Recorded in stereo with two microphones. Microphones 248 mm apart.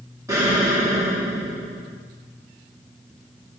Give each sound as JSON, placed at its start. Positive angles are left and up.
{"t": 0.3, "sound": "an explosion", "side_deg": -15, "distance_m": 1.2}